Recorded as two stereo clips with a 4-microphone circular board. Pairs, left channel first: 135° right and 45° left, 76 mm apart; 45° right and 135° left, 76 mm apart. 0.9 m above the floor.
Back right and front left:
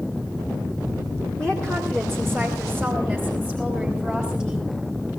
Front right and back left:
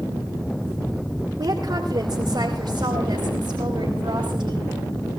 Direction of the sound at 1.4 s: 145° left.